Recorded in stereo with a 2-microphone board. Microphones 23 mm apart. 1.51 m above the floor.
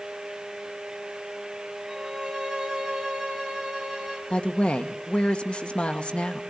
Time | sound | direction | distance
1.9 | a violin | 25° right (ahead or behind) | 5 m
4.3 | a woman speaking | 50° left (ahead or behind) | 1.4 m